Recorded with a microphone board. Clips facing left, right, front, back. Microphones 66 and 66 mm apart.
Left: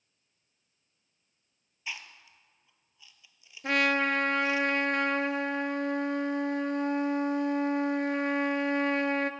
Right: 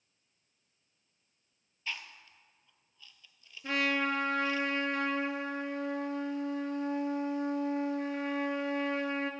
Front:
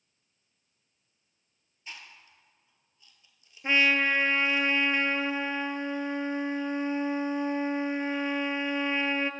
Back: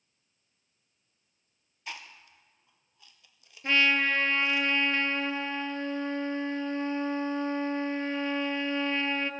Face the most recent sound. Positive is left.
turn(degrees=75)